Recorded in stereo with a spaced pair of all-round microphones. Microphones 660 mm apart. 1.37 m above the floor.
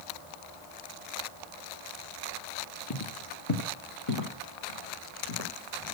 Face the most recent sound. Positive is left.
turn(degrees=60)  # may be behind; listen again after turning